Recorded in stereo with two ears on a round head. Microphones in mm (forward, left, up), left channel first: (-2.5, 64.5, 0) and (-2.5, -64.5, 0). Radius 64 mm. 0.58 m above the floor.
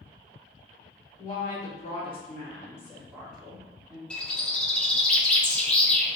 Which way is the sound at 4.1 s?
10° left (ahead or behind).